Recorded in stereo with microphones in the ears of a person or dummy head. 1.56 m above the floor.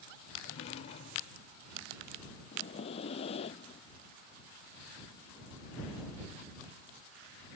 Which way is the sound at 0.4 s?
45° left (ahead or behind).